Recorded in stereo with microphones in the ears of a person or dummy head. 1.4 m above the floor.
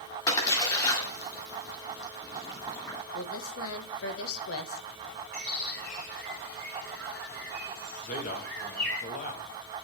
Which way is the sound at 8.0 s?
45° left (ahead or behind).